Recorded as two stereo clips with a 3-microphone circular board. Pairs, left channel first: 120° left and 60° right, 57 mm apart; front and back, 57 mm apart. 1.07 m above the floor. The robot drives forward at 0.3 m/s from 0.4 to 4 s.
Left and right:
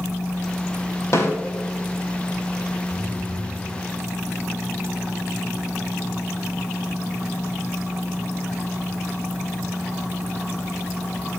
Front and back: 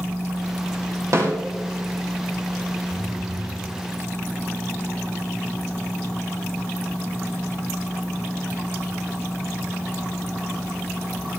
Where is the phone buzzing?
140° left, 6.5 m.